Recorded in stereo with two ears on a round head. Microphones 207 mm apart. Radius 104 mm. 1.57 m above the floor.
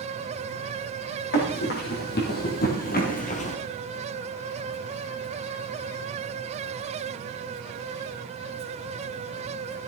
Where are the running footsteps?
45° left (ahead or behind), 4.5 m; by 3.6 s 30° left (ahead or behind), 1.8 m.